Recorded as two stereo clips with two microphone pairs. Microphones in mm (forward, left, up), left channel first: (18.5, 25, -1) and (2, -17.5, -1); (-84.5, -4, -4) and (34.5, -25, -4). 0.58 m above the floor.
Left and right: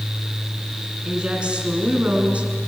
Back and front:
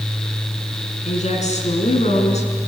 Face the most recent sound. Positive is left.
turn(degrees=-170)